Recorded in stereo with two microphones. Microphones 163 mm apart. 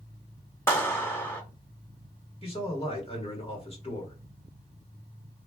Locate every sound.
0.7 s a clap: 15° left (ahead or behind), 0.9 m
2.4 s a man speaking: 35° left (ahead or behind), 1.6 m